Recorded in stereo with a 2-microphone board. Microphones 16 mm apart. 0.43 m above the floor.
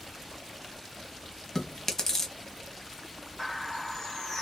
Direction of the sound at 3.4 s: 40° left (ahead or behind).